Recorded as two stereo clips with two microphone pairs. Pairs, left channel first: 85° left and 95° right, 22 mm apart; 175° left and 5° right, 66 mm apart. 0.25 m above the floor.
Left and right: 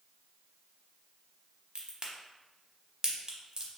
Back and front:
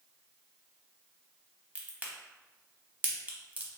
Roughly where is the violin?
I don't hear a violin.